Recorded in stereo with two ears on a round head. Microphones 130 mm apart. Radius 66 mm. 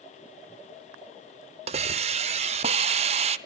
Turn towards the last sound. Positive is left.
turn(degrees=-45)  # may be behind; listen again after turning